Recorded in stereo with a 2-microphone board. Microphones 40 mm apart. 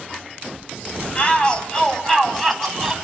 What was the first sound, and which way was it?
A shout, 30° left (ahead or behind).